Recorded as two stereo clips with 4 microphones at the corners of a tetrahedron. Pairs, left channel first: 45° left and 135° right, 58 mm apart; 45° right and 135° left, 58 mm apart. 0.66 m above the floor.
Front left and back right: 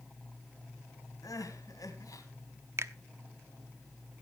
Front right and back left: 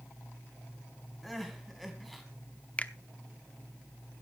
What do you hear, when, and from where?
1.2 s crying: 45° left, 3 m
2.8 s a finger snap: 110° right, 0.9 m